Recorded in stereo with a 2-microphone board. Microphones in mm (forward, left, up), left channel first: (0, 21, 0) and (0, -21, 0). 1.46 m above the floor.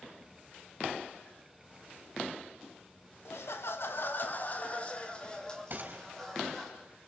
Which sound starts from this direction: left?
Laughter, at 3.2 s.